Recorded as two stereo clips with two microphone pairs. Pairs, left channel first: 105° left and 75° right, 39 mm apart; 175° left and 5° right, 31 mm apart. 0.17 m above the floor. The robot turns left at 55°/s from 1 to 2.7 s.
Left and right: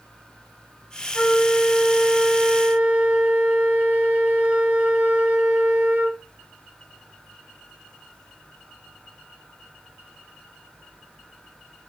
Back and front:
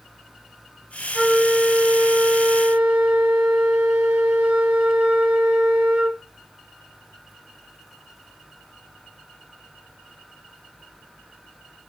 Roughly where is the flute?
Ahead left.